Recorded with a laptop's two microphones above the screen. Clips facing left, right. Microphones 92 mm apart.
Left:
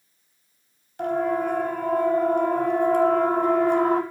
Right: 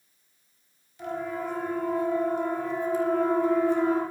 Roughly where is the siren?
Left.